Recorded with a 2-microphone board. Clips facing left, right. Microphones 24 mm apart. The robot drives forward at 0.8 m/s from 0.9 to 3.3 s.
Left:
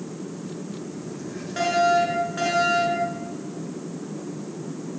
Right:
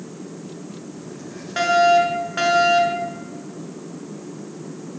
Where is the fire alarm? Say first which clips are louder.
Right 5 dB; 30° right (ahead or behind), 7 m; by 3.1 s 35° right (ahead or behind), 6 m.